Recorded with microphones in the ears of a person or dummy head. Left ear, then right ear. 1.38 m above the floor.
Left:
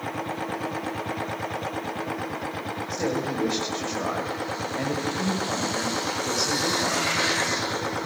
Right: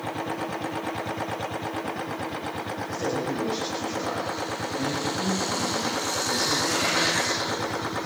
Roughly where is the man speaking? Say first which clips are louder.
Left 1 dB; left.